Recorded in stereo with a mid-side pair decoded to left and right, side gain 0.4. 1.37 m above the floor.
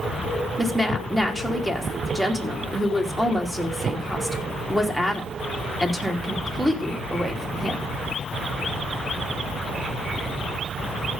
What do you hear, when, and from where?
0.6 s a woman speaking: 5° right, 3 m